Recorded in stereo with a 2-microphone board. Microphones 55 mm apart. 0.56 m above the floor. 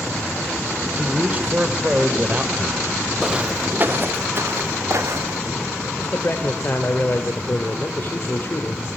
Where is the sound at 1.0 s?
25° right (ahead or behind), 2 m.